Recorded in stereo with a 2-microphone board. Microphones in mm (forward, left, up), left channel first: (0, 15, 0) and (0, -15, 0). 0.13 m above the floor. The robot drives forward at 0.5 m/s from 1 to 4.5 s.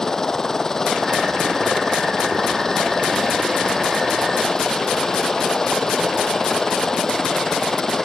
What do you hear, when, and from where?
0.0 s a helicopter: 20° left (ahead or behind)